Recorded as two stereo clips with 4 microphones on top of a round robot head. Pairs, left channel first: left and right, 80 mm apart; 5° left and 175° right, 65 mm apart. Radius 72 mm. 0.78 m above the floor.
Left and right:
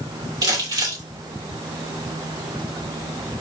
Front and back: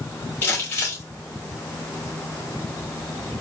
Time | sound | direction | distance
0.4 | crumpling | 60° right | 2.5 m